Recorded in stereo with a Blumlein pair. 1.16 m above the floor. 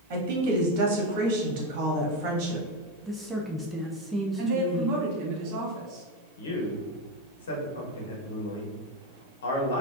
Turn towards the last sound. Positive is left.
turn(degrees=65)